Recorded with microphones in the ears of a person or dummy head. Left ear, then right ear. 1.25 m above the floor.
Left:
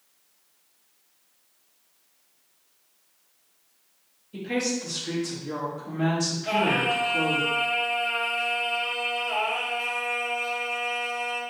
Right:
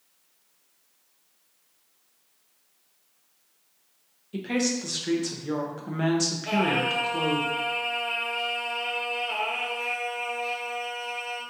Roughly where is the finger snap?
I don't hear a finger snap.